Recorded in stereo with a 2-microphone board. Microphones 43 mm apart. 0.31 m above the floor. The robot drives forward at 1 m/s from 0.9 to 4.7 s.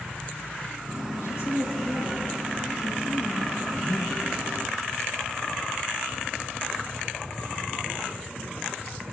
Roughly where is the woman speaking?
Left.